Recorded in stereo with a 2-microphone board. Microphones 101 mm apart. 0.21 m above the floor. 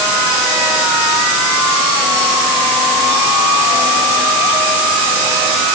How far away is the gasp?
No gasp in this recording.